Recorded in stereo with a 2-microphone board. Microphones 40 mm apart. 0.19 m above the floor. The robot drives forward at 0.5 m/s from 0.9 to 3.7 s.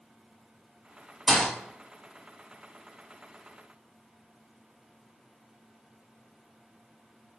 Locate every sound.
1.3 s a thud: 5° right (ahead or behind), 1.9 m